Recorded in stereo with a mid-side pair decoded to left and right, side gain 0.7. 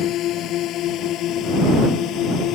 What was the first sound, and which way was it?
A drone, 50° left.